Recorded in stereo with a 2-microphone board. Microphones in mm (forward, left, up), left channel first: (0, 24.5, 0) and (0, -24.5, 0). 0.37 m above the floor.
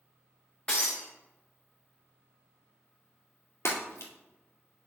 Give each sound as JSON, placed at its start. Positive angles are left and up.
{"t": 0.7, "sound": "breaking glass", "side_deg": 25, "distance_m": 3.0}
{"t": 3.6, "sound": "breaking glass", "side_deg": 65, "distance_m": 2.5}